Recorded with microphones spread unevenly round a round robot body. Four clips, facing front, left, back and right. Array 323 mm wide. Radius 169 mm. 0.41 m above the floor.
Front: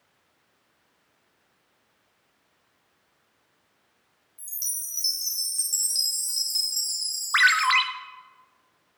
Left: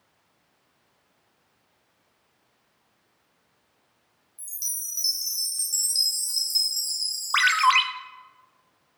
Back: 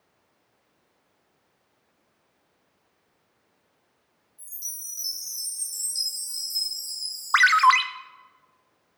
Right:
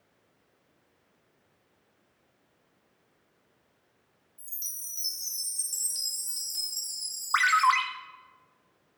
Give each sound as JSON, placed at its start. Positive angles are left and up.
{"t": 4.4, "sound": "a chime", "azimuth_deg": 15, "distance_m": 4.0}
{"t": 7.3, "sound": "a ringtone", "azimuth_deg": 140, "distance_m": 0.6}